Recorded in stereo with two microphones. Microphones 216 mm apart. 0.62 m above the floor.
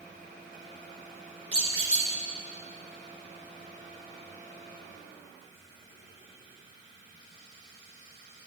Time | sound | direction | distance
1.5 | a squeak | 80° right | 2.5 m